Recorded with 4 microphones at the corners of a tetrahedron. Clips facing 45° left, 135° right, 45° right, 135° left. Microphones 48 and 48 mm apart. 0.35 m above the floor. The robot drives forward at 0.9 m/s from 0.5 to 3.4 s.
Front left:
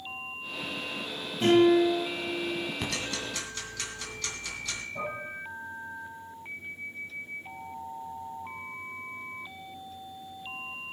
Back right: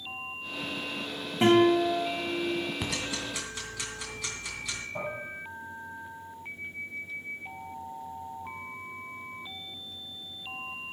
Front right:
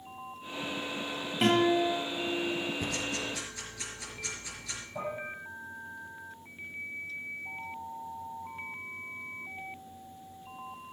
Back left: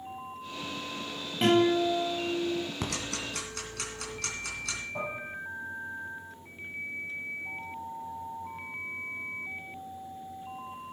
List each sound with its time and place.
1.4 s a guitar: 130° right, 5.5 m; by 2.6 s 135° right, 6.5 m
2.8 s ticking: 140° left, 2.5 m; by 4.8 s 145° left, 3 m
5.0 s dishes clattering: 175° right, 8 m